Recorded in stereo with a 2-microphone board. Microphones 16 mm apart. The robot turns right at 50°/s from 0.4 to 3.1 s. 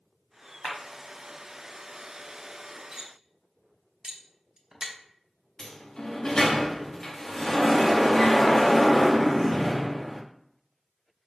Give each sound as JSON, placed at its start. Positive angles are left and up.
{"t": 0.6, "sound": "a clap", "side_deg": 35, "distance_m": 1.3}
{"t": 2.9, "sound": "cutlery clinking", "side_deg": -50, "distance_m": 0.8}
{"t": 5.6, "sound": "a sliding door", "side_deg": 45, "distance_m": 0.7}